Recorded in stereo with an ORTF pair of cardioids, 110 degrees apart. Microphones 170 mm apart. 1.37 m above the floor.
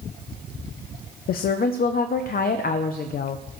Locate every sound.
1.3 s a woman speaking: 60° left, 0.6 m